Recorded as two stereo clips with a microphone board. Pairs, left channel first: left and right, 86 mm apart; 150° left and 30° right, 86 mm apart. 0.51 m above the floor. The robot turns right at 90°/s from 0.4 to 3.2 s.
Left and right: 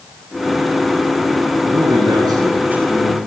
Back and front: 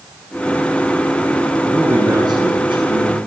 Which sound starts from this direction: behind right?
A man speaking, at 1.6 s.